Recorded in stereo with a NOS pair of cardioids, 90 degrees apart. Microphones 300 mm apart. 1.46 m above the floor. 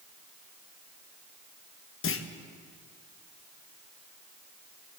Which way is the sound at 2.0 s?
50° left.